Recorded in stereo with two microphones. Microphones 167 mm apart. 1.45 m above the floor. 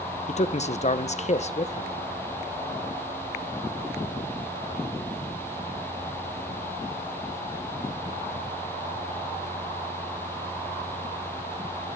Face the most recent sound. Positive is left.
turn(degrees=40)  # may be behind; listen again after turning